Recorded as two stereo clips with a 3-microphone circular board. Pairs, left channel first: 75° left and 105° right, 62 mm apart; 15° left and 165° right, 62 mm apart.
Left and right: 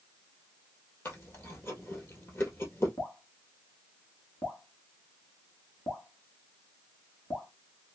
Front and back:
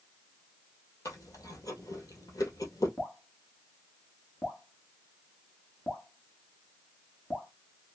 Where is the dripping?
65° left, 1.2 m.